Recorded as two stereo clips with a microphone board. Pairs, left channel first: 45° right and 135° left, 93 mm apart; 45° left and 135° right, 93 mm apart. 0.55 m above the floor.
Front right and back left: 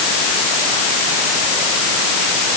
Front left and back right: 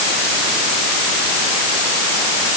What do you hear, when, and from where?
Only background noise.